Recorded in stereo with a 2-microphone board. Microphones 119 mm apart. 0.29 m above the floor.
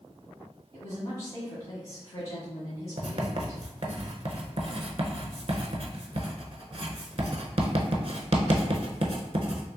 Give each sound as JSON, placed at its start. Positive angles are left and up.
{"t": 0.7, "sound": "a woman speaking", "side_deg": 35, "distance_m": 1.6}
{"t": 3.0, "sound": "writing", "side_deg": -55, "distance_m": 0.5}